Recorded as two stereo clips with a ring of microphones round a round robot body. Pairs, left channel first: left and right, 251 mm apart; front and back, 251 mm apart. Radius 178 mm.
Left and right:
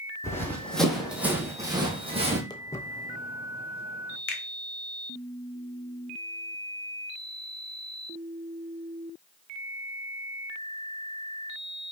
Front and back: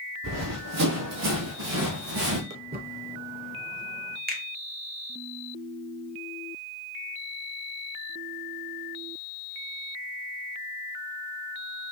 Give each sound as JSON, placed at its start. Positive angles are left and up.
{"t": 0.2, "sound": "running footsteps", "azimuth_deg": 170, "distance_m": 1.9}
{"t": 2.5, "sound": "footsteps", "azimuth_deg": 160, "distance_m": 0.8}
{"t": 4.3, "sound": "a finger snap", "azimuth_deg": 130, "distance_m": 1.2}